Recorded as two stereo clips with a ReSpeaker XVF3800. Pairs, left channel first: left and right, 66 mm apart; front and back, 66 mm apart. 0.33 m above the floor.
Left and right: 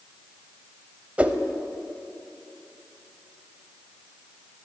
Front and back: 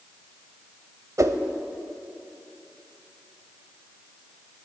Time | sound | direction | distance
1.2 | a whoosh | 155° right | 0.6 m